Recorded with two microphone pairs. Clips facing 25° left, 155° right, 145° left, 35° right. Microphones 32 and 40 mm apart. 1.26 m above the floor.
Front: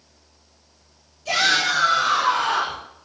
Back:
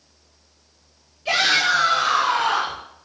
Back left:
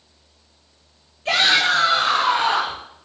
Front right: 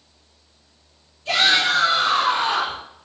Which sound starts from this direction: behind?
A shout, at 1.2 s.